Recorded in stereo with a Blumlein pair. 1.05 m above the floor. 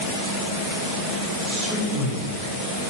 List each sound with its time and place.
1.4 s a man speaking: 40° right, 2.5 m